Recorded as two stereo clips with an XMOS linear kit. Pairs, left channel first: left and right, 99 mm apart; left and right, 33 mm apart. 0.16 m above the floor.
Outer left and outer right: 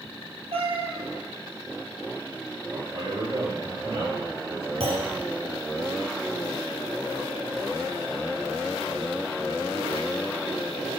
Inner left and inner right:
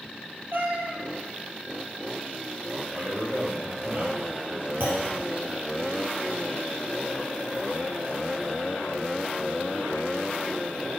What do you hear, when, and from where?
0.5 s a cat meowing: 75° right (ahead or behind), 1.5 m
2.7 s a man speaking: 55° right (ahead or behind), 3.5 m
4.8 s a clunk: 70° right (ahead or behind), 3.5 m